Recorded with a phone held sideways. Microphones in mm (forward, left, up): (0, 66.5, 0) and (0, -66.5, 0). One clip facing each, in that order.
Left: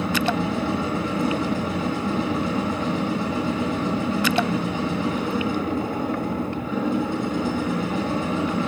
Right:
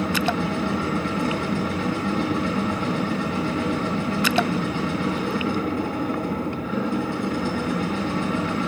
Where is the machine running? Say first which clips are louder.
Even; 20° left (ahead or behind), 4.5 m.